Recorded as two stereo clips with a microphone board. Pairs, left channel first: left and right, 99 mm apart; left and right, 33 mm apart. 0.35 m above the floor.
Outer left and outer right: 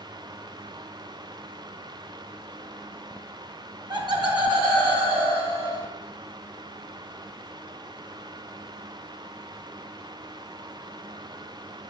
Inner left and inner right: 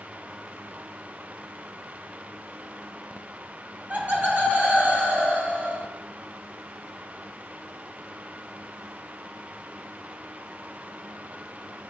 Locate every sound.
3.9 s laughter: 50° right (ahead or behind), 2.5 m; by 5.8 s 70° right (ahead or behind), 4.5 m